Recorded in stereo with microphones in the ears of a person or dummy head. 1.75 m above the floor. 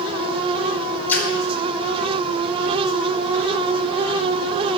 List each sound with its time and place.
1.1 s a splash: 10° left (ahead or behind), 3.5 m